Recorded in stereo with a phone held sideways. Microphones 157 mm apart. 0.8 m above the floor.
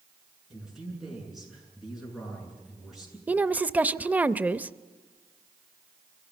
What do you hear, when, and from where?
0.5 s a man speaking: 5° right (ahead or behind), 8.5 m
3.3 s a woman speaking: 10° right (ahead or behind), 0.5 m